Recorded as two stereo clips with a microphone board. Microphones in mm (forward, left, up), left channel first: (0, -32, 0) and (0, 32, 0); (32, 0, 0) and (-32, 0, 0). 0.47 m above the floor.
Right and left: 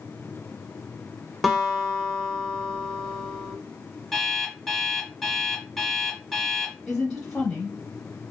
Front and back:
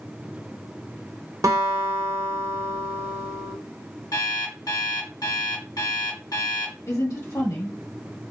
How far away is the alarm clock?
About 1.5 m.